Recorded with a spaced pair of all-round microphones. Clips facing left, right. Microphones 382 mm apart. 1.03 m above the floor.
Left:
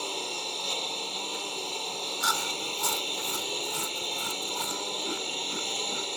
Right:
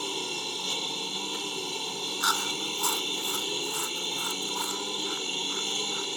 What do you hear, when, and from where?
0.0 s a lawn mower: 25° right (ahead or behind)
2.2 s chewing: 45° left (ahead or behind)